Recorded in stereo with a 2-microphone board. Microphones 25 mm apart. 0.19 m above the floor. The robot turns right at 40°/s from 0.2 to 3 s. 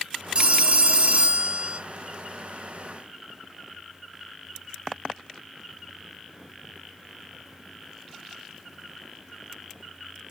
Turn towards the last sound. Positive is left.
turn(degrees=-25)